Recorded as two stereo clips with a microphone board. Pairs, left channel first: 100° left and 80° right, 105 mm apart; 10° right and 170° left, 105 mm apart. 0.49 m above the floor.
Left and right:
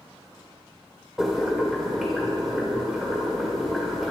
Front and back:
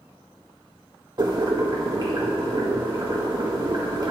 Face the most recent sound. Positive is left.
turn(degrees=-165)